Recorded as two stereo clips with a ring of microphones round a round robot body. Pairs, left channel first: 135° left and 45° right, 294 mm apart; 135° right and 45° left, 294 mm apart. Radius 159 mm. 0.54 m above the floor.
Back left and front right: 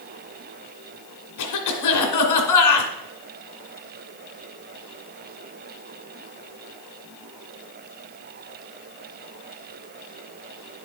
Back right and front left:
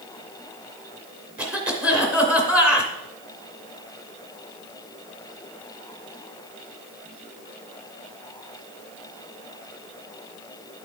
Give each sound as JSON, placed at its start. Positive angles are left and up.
{"t": 1.4, "sound": "a cough", "azimuth_deg": 130, "distance_m": 2.5}